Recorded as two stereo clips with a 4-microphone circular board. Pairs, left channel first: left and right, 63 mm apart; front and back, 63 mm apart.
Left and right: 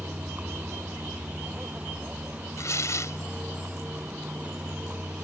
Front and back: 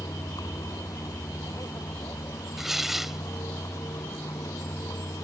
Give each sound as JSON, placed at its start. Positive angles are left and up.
{"t": 0.0, "sound": "a vehicle", "azimuth_deg": -25}
{"t": 2.6, "sound": "tearing paper", "azimuth_deg": 95}